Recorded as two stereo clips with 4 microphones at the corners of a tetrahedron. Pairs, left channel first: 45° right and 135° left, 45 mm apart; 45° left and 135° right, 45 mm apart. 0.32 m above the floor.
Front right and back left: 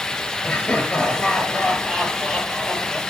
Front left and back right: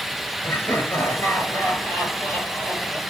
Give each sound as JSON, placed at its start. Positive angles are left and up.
{"t": 0.4, "sound": "laughter", "azimuth_deg": 30, "distance_m": 5.0}